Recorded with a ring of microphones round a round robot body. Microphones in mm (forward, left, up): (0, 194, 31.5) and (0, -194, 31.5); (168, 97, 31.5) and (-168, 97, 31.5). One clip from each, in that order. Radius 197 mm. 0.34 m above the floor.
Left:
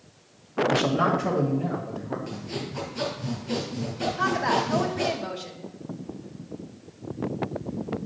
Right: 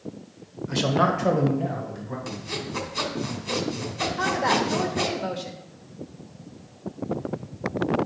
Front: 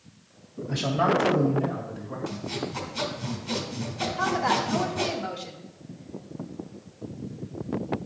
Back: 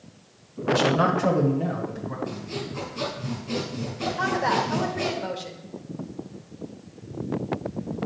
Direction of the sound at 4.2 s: 145° right.